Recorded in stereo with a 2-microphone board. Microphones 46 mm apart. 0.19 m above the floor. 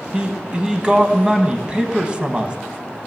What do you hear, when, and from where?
0.1 s a man speaking: 20° right (ahead or behind), 1.0 m